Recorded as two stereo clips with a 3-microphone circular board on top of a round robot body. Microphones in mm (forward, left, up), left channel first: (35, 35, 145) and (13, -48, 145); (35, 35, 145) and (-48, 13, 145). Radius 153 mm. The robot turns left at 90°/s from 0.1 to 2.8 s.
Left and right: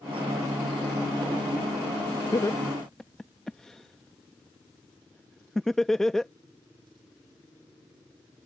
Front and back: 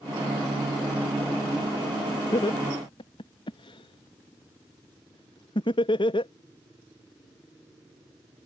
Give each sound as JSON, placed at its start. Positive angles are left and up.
{"t": 2.3, "sound": "laughter", "azimuth_deg": 35}